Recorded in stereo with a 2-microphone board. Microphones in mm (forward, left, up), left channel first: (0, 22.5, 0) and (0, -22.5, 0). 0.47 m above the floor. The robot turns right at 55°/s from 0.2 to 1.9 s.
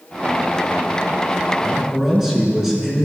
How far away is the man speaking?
About 5 m.